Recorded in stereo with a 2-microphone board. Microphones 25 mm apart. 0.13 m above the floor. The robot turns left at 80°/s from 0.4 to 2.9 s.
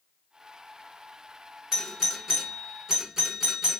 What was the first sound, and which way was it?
A doorbell, 10° right (ahead or behind).